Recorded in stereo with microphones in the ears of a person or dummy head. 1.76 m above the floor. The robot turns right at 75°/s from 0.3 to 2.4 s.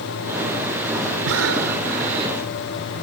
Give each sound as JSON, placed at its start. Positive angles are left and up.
{"t": 1.2, "sound": "breathing", "azimuth_deg": -105}